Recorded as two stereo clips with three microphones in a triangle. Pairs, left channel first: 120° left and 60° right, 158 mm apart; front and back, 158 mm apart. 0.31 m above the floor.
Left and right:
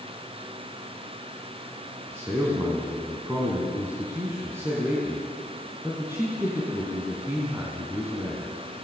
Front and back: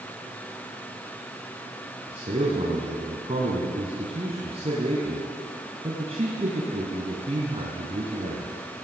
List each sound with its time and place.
2.1 s a man speaking: 135° right, 3 m